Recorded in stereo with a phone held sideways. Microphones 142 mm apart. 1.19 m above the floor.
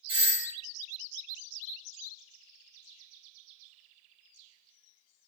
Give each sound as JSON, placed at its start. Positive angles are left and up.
{"t": 0.1, "sound": "a doorbell", "side_deg": -40, "distance_m": 1.4}